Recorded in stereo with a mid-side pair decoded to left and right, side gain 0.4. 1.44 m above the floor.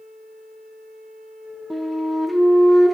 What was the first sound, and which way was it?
A flute, 10° right.